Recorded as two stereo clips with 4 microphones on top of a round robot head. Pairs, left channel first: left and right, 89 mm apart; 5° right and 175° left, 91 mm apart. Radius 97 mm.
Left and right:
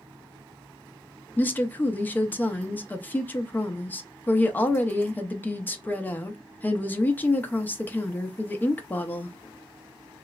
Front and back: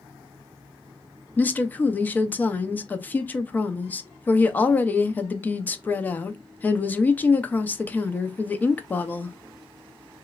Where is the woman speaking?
45° left, 0.7 m.